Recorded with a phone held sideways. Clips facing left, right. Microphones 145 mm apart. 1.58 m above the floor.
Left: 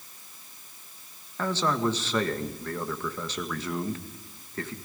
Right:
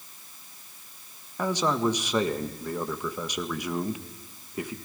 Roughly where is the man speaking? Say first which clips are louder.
Right 1 dB; centre.